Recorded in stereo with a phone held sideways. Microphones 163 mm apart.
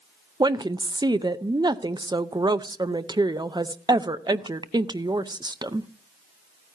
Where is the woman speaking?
25° right (ahead or behind), 0.5 m.